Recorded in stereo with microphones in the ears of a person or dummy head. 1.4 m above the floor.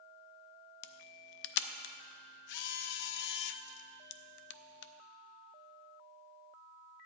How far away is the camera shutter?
About 0.5 m.